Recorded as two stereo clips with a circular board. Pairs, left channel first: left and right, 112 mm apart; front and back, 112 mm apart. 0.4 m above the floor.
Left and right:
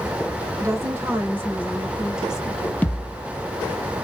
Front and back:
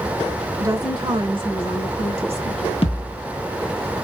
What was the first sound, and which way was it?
A woman speaking, 130° right.